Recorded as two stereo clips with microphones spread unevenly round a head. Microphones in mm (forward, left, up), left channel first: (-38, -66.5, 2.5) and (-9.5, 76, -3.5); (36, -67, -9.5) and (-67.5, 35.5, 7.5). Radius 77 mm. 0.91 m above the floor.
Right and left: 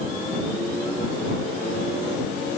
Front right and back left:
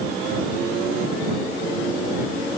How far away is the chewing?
I don't hear chewing.